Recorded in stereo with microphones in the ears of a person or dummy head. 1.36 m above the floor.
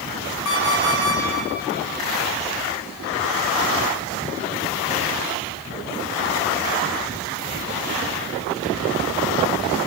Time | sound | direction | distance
0.5 | an alarm clock | 75° left (ahead or behind) | 8 m